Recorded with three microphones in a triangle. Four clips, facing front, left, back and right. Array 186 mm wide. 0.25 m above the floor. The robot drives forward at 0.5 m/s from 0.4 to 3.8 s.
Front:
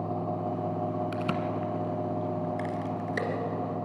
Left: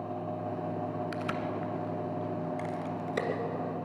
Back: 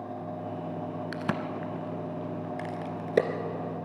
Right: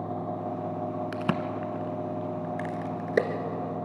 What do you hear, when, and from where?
1.1 s a crack: 100° right, 1.2 m; by 3.3 s 140° right, 1.8 m